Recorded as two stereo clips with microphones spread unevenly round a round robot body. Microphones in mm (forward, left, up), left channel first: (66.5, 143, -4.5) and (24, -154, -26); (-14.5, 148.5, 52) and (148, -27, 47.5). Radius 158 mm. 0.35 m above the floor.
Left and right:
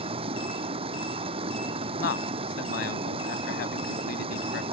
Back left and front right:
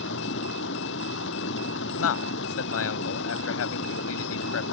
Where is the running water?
170° right.